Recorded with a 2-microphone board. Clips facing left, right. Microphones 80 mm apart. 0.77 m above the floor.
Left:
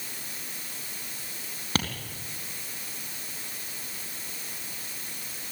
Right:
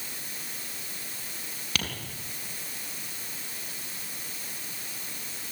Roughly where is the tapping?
Left.